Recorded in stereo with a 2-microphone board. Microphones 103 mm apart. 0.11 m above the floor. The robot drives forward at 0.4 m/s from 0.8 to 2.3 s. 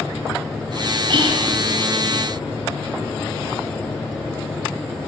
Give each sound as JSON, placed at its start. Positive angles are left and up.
{"t": 1.1, "sound": "whispering", "side_deg": -50, "distance_m": 2.0}